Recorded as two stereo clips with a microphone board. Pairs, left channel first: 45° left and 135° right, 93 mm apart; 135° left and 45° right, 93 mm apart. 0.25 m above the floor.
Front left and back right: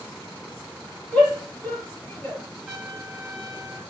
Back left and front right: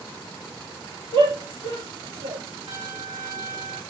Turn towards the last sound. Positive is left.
turn(degrees=-50)